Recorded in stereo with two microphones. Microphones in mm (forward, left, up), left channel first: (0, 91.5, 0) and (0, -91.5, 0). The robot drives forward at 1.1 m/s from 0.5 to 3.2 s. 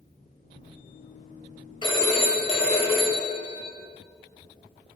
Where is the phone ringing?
25° left (ahead or behind), 1.2 m.